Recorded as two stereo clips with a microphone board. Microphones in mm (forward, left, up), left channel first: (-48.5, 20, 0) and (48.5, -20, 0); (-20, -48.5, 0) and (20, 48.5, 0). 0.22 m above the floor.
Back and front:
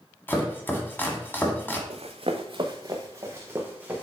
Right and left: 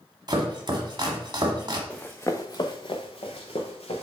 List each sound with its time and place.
0.3 s chopping: 95° left, 1.3 m
1.9 s running footsteps: 35° right, 1.0 m; by 4.0 s 100° right, 1.9 m